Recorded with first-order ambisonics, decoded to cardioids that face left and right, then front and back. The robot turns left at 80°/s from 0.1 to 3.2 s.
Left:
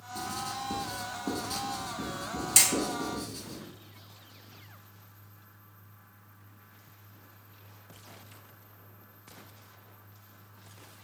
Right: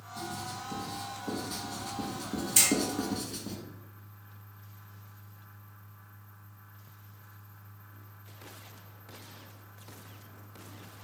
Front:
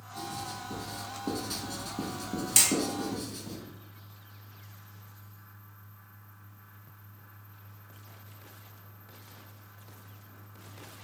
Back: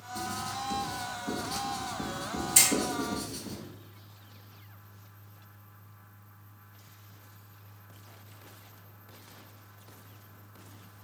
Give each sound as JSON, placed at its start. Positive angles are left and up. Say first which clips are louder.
{"t": 0.1, "sound": "writing", "louder": "left 3 dB, back 3 dB", "azimuth_deg": 140, "distance_m": 1.2}
{"t": 2.6, "sound": "hammering", "louder": "left 2 dB, back 1 dB", "azimuth_deg": 50, "distance_m": 1.8}